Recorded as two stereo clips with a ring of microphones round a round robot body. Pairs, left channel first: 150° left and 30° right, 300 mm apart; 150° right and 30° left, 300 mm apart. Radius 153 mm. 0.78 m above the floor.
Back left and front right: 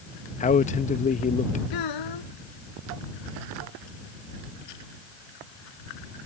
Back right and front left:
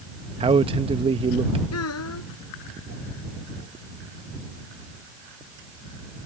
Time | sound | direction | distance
0.4 | a man speaking | 95° left | ?
1.7 | a child speaking | 165° left | ?